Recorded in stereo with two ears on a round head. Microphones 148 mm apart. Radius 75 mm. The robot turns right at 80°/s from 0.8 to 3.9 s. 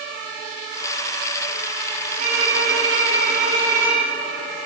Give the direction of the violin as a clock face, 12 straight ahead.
5 o'clock.